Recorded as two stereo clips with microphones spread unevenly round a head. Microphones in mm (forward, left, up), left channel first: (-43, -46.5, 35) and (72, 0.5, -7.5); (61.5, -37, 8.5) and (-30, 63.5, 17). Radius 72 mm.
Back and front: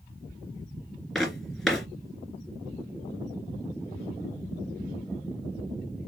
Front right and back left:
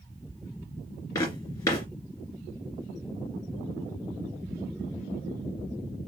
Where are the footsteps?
105° right, 1.6 m.